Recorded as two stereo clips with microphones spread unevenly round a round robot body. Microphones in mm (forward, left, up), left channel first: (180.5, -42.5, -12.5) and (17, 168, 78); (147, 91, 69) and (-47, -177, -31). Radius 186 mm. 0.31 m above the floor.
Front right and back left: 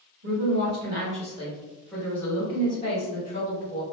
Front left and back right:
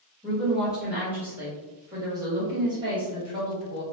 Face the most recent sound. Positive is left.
turn(degrees=-70)